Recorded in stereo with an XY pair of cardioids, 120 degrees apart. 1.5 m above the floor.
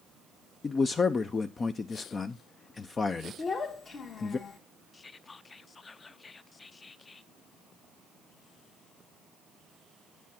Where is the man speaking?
30° left, 0.6 m.